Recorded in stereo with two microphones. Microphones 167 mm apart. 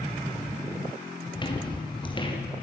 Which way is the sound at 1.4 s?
30° left (ahead or behind).